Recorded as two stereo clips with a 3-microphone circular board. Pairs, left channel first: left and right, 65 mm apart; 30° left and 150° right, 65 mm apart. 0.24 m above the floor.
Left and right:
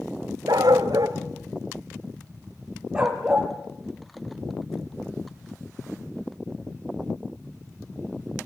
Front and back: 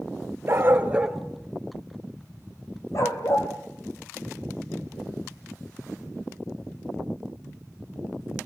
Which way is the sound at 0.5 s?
100° right.